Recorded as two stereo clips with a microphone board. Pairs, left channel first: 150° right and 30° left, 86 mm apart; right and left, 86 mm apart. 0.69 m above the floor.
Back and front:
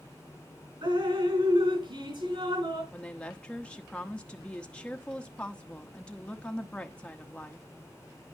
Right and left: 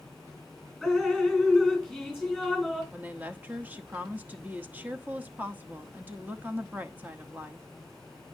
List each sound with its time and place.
0.8 s dripping: 5° left, 4.5 m
2.9 s a woman speaking: 140° left, 1.0 m